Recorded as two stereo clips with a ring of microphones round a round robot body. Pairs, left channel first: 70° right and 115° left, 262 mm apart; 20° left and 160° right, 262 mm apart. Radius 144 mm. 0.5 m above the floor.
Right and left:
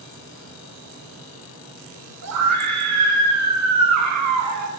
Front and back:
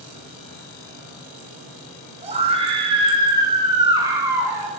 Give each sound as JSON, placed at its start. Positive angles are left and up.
{"t": 2.2, "sound": "a scream", "azimuth_deg": 135, "distance_m": 6.5}